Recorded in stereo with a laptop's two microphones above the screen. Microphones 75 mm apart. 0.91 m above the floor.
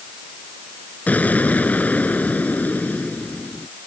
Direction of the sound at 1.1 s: 20° left (ahead or behind).